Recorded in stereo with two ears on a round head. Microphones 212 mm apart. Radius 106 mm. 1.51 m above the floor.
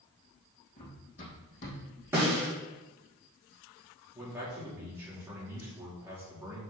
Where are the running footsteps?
30° left (ahead or behind), 4.5 m; by 1.8 s 35° left (ahead or behind), 4 m.